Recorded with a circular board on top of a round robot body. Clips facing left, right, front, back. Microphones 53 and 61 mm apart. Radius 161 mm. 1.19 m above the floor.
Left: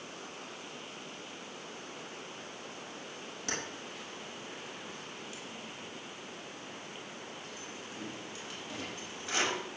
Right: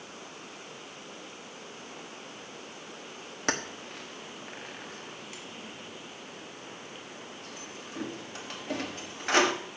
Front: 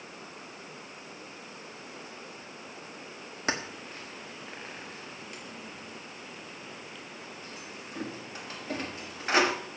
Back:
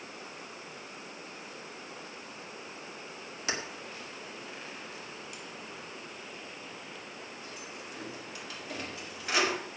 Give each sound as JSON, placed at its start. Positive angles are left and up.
{"t": 3.5, "sound": "keys jangling", "azimuth_deg": -50, "distance_m": 1.4}